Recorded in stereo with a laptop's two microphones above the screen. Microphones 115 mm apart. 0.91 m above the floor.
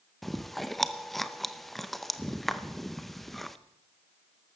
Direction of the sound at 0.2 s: Centre (ahead or behind).